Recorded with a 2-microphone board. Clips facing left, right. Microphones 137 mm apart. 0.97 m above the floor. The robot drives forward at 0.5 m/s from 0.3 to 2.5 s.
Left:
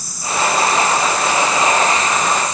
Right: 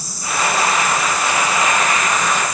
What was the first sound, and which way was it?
Only background noise.